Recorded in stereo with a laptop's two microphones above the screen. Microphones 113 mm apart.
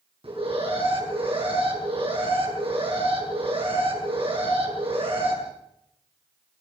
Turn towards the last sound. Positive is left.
turn(degrees=-60)  # may be behind; listen again after turning